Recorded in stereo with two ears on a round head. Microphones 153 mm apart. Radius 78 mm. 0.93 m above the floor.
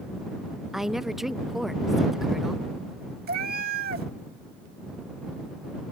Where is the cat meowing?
55° right (ahead or behind).